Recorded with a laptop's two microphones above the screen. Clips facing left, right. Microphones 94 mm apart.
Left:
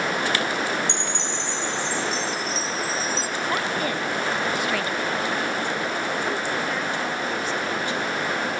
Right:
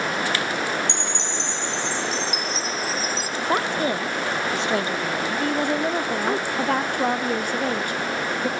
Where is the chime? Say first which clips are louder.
Even; 20° right (ahead or behind), 1.3 m.